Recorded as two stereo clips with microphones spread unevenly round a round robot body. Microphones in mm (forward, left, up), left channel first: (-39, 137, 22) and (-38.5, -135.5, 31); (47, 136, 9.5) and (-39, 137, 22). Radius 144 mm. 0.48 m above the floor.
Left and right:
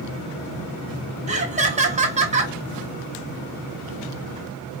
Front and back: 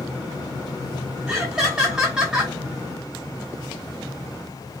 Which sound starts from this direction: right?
Laughter, at 1.3 s.